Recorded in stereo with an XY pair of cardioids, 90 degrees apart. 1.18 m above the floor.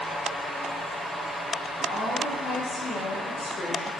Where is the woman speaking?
60° left, 0.5 m.